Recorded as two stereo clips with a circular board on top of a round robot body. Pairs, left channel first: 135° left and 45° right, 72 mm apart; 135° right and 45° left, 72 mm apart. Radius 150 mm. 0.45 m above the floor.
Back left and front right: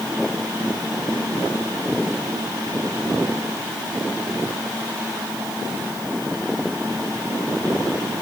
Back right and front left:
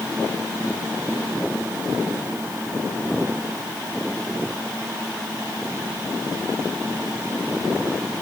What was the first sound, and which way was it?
Only background noise.